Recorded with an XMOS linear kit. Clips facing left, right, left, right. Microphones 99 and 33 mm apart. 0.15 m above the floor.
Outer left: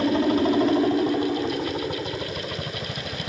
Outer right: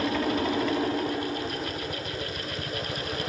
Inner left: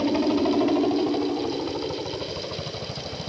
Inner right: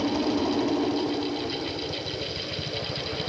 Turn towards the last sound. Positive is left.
turn(degrees=35)  # may be behind; listen again after turning